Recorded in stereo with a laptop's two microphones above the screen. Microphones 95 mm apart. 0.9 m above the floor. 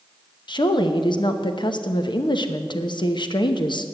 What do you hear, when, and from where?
0.5 s a woman speaking: 55° left (ahead or behind), 0.8 m